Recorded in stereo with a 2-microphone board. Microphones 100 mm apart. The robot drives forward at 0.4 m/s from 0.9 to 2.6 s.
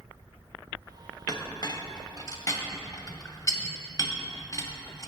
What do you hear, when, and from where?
1.3 s a clink: 40° left (ahead or behind), 0.7 m; by 5.1 s 35° left (ahead or behind), 0.7 m